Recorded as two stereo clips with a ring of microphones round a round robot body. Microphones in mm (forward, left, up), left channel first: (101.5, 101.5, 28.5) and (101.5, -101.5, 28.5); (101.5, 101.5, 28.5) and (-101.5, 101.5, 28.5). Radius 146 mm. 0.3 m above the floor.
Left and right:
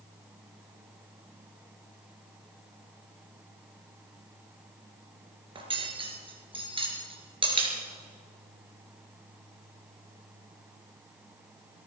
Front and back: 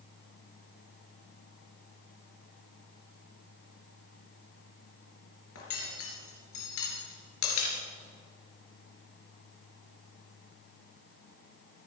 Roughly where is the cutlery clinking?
Ahead right.